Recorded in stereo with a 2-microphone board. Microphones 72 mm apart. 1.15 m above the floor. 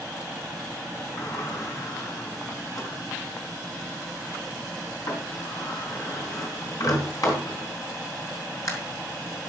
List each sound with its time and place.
1.2 s a sliding door: 50° left (ahead or behind), 4 m